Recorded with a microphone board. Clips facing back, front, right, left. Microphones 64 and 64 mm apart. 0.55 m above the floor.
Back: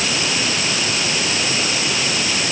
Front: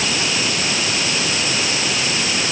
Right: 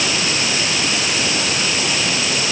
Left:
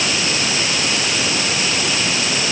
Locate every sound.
Only background noise.